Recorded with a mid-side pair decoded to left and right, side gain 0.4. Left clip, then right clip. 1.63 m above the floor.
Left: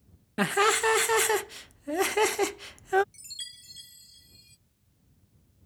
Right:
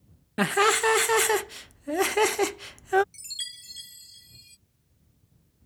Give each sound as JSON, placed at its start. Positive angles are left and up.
{"t": 0.4, "sound": "laughter", "azimuth_deg": -15}
{"t": 3.1, "sound": "a chime", "azimuth_deg": -40}